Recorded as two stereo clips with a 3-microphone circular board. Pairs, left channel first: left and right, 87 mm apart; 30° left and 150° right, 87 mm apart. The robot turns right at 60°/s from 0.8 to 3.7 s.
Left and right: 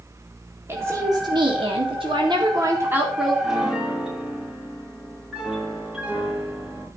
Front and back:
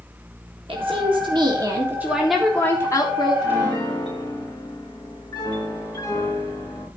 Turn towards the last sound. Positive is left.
turn(degrees=-10)